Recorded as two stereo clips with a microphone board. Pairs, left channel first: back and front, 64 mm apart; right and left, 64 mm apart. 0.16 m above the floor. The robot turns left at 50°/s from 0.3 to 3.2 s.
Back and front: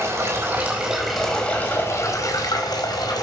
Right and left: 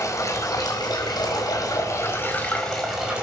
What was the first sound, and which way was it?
Running water, 55° right.